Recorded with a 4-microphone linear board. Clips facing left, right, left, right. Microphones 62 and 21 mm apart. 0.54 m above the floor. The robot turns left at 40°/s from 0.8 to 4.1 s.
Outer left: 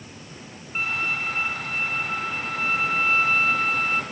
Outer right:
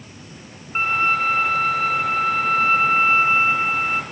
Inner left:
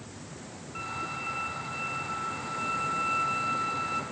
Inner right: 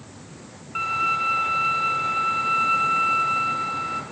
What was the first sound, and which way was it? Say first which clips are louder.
A violin: outer right 8 dB, inner right 13 dB; 45° right.